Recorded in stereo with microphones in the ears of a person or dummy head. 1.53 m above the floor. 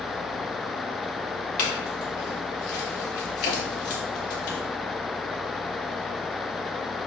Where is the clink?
45° left (ahead or behind), 1.4 m.